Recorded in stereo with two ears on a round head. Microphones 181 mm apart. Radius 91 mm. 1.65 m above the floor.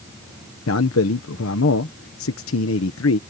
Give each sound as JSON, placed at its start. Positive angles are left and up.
{"t": 0.7, "sound": "a man speaking", "side_deg": 75}